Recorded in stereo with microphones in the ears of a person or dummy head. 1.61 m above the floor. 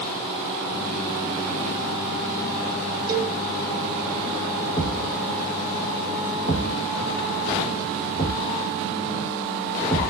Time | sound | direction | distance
3.1 | a cowbell | 20° right (ahead or behind) | 0.8 m
4.8 | a thud | 20° left (ahead or behind) | 1.7 m